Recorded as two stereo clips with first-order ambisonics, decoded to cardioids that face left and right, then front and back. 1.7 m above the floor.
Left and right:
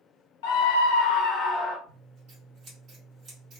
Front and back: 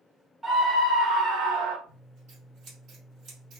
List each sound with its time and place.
0.4 s a scream: 95° left, 0.8 m; by 1.8 s 165° left, 0.6 m
1.9 s scissors: 135° right, 1.7 m